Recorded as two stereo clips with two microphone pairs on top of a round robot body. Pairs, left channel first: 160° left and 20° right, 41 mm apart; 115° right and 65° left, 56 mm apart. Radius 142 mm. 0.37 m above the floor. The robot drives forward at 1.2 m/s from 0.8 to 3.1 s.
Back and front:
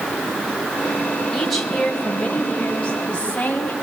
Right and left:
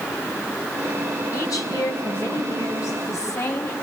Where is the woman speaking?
115° right, 3 m; by 3.7 s 145° right, 4 m.